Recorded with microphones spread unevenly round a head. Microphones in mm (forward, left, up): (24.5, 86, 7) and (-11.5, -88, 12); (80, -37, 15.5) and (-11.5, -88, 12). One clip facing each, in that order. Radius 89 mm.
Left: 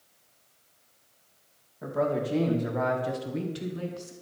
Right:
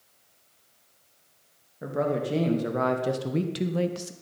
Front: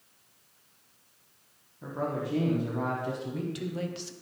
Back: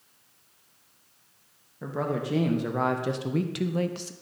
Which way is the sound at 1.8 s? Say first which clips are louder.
Even, back 3 dB; 165° right.